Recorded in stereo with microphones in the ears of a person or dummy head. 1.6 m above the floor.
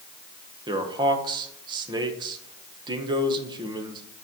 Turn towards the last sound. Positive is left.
turn(degrees=-20)  # may be behind; listen again after turning